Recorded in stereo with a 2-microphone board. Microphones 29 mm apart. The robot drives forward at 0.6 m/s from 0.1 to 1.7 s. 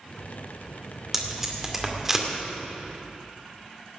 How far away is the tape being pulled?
About 2.5 m.